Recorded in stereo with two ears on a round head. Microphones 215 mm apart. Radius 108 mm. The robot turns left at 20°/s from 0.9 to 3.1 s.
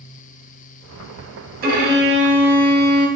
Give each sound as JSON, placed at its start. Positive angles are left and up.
{"t": 1.6, "sound": "a violin", "side_deg": -35, "distance_m": 0.6}